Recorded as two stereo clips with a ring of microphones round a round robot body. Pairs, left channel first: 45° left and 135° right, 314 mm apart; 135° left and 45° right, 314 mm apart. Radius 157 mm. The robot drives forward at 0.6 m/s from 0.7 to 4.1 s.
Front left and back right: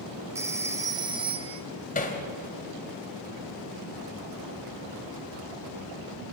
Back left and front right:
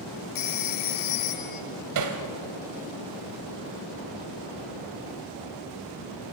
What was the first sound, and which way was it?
A phone ringing, 145° left.